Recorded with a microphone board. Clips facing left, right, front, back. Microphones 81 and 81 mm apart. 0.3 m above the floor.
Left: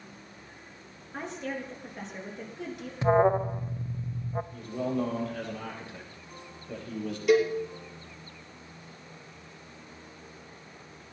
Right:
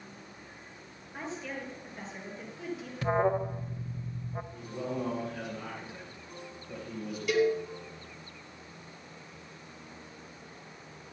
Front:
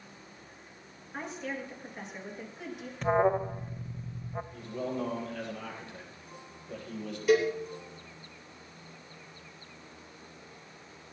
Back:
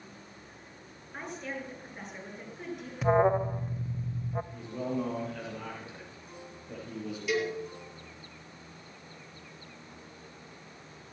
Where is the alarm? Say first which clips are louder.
Left 5 dB, back 2 dB; 105° left, 0.6 m.